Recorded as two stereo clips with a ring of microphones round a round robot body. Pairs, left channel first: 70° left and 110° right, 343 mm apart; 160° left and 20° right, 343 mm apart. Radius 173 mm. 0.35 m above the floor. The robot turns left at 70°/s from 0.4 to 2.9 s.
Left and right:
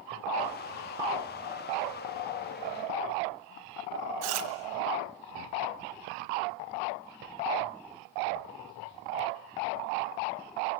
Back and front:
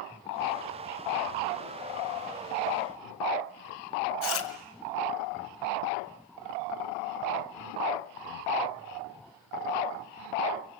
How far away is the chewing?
About 2.5 m.